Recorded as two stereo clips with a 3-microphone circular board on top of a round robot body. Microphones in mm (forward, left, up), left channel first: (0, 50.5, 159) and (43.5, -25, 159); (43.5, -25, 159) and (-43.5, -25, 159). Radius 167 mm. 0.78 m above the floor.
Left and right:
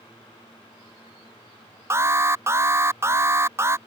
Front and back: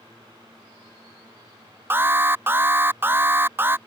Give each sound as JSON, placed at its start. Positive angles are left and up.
{"t": 1.9, "sound": "an alarm", "azimuth_deg": -115}